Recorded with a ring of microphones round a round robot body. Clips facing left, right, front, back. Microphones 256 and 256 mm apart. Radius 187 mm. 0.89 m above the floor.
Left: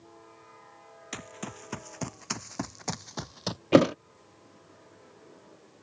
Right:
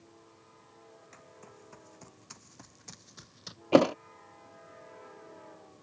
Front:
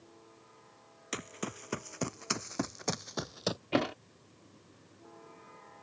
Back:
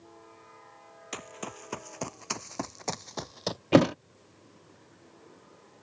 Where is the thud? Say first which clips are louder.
Left 2 dB, back 11 dB; 155° left.